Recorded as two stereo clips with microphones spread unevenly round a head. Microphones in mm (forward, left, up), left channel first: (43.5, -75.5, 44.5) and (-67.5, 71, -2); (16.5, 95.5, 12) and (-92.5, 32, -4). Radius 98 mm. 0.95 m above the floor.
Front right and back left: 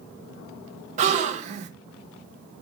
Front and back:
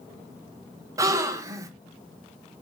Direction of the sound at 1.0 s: 165° left.